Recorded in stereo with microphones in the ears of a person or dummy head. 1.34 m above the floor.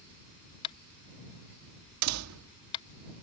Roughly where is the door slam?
Right.